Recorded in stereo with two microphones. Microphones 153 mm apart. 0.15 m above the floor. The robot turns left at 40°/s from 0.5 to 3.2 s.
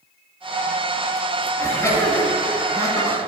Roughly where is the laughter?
Centre.